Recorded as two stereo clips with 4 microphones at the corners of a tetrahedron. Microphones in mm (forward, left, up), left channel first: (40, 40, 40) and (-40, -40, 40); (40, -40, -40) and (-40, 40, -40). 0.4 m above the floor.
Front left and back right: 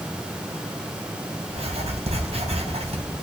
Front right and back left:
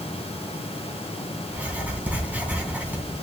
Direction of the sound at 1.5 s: 150° right.